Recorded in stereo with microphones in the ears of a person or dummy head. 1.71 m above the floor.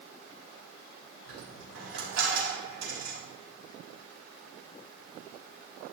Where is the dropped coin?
65° right (ahead or behind), 3.5 m.